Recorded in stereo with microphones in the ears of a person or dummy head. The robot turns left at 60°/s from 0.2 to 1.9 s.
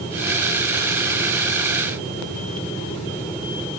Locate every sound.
Only background noise.